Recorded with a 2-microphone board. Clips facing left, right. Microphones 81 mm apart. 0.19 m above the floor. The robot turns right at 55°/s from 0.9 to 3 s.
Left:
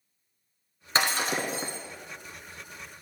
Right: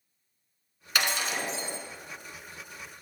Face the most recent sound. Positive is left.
turn(degrees=150)